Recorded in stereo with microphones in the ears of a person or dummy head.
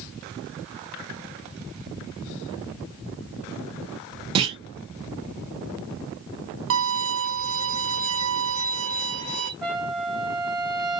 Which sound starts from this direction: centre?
A trumpet, at 9.6 s.